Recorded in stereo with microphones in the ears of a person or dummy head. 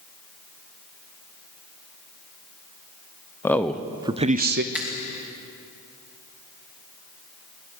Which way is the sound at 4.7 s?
Centre (ahead or behind).